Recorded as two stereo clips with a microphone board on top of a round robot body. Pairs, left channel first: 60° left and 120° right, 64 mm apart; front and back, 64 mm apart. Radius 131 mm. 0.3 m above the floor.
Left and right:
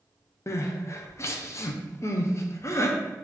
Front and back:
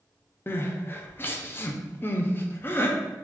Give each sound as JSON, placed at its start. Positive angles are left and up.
{"t": 0.5, "sound": "crying", "azimuth_deg": 40, "distance_m": 0.6}